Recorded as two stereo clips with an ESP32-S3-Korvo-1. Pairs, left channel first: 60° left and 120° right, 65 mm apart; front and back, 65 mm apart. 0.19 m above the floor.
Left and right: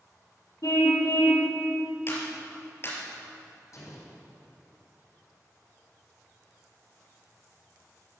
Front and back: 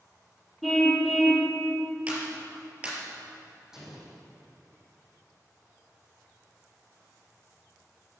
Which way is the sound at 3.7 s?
95° left.